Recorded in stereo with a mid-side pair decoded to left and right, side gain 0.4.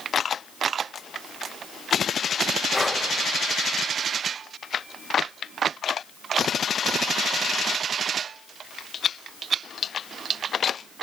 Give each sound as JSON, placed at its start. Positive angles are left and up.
{"t": 2.7, "sound": "breathing", "azimuth_deg": 25, "distance_m": 2.5}